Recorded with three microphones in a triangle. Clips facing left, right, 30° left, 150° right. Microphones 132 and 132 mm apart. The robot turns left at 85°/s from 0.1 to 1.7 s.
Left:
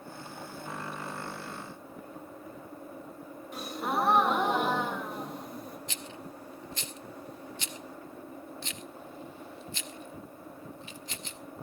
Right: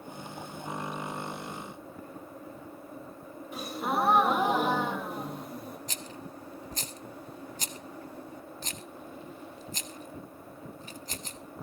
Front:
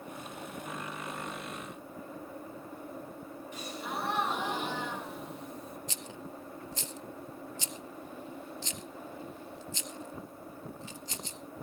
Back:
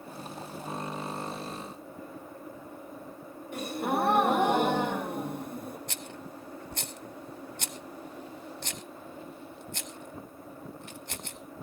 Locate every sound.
3.5 s a gasp: straight behind, 1.6 m
5.9 s a rattle: 135° right, 0.9 m